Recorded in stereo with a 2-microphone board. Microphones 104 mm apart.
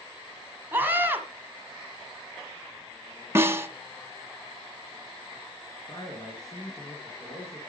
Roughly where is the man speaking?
Left.